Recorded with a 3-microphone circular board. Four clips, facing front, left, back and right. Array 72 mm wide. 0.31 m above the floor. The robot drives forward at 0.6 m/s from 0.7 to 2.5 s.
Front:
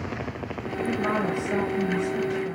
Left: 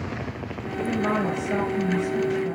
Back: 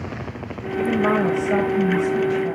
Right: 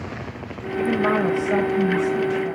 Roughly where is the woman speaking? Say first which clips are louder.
Right 5 dB, back 7 dB; behind right.